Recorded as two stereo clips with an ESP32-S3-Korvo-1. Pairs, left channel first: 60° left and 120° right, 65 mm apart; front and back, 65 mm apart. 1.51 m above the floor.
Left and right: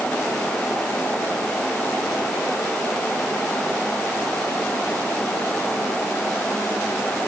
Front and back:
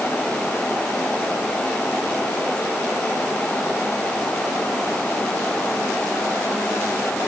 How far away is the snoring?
I don't hear snoring.